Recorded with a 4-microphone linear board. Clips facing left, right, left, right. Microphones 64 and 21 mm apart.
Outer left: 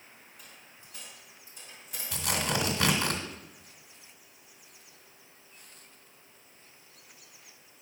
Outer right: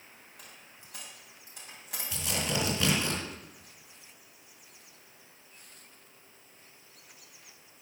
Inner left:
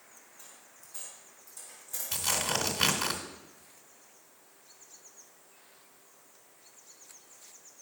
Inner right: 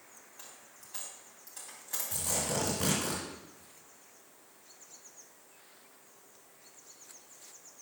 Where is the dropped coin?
80° right, 3 m.